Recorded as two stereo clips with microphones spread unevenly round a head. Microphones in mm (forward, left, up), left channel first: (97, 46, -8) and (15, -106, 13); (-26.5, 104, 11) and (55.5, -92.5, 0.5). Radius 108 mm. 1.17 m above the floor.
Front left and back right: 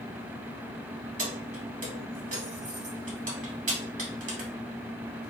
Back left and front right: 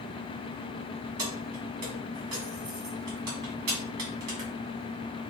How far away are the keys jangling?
About 1.4 m.